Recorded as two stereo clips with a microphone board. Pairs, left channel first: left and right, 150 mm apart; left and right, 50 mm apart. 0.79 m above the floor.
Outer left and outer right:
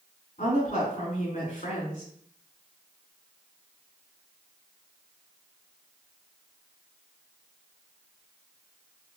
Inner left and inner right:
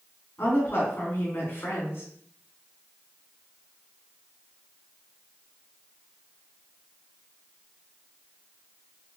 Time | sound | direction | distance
0.4 | a woman speaking | 50° left (ahead or behind) | 2.5 m